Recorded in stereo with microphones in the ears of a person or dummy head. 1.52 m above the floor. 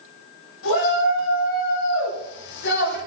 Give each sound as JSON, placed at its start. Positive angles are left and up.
{"t": 0.6, "sound": "a shout", "side_deg": 75, "distance_m": 9.5}